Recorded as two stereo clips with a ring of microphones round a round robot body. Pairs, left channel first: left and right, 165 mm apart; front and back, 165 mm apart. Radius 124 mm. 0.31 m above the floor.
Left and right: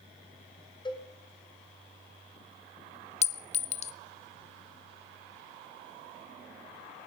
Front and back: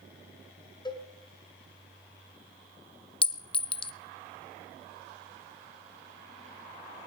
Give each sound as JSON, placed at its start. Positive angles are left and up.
{"t": 0.8, "sound": "a cowbell", "azimuth_deg": 45, "distance_m": 1.6}
{"t": 3.2, "sound": "a clink", "azimuth_deg": 50, "distance_m": 0.6}